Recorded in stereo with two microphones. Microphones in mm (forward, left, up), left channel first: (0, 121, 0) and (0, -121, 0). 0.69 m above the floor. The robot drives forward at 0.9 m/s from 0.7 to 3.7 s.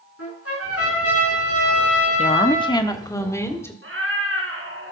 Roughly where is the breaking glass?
No breaking glass in this recording.